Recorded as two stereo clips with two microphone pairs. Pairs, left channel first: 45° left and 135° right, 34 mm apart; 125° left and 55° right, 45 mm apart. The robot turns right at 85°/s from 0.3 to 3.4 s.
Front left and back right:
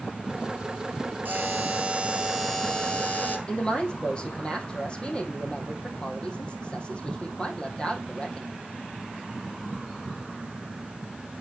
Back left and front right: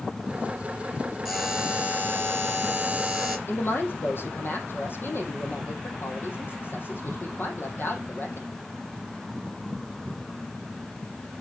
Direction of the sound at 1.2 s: 145° right.